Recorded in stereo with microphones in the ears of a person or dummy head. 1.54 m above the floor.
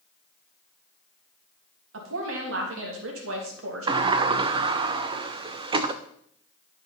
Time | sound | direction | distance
1.9 | a woman speaking | 85° right | 2.5 m
3.9 | a sliding door | 30° right (ahead or behind) | 0.7 m